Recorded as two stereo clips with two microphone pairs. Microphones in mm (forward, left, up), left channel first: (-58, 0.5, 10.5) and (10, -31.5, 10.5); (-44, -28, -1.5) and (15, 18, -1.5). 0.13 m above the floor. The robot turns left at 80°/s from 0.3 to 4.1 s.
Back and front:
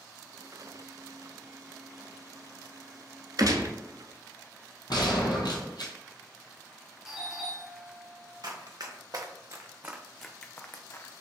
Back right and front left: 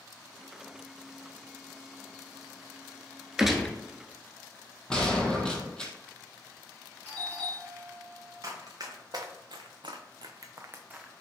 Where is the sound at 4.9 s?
140° left, 0.9 m.